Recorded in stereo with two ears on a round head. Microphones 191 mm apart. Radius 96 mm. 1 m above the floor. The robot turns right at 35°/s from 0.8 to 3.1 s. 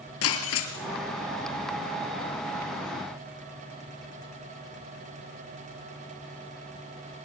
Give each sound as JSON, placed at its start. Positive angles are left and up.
{"t": 0.2, "sound": "breaking glass", "side_deg": 70, "distance_m": 3.0}